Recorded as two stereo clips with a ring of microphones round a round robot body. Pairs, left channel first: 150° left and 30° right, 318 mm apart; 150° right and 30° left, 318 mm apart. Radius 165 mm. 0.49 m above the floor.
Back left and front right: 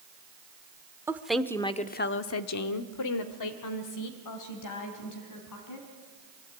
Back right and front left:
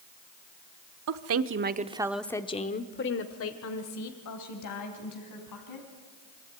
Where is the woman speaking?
50° left, 1.4 m; by 5.9 s 175° right, 4 m.